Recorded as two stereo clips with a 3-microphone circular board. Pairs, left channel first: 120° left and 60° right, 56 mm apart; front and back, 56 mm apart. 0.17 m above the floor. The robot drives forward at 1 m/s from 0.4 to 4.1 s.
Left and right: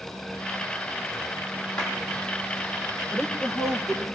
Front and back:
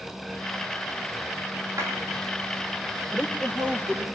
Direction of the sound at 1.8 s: 170° right.